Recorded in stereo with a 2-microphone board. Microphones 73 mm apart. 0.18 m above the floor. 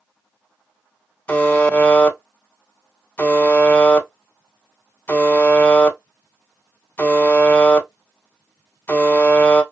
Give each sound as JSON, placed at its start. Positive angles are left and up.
{"t": 1.3, "sound": "a buzzer", "side_deg": 25, "distance_m": 0.6}